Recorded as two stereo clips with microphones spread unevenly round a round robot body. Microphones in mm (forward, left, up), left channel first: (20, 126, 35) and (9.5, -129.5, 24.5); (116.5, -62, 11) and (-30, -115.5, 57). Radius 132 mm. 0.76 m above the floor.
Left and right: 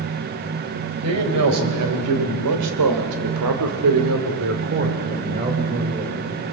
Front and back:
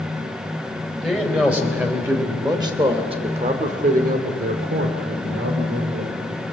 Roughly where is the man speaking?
Right.